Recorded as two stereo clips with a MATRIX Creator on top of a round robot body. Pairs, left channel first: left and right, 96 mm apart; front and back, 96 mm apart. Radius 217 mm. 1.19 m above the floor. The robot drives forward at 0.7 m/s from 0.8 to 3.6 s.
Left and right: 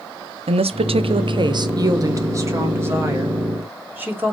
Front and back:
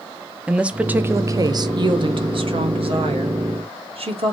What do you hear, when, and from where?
0.5 s a woman speaking: 100° right, 0.8 m; by 4.3 s 160° right, 2 m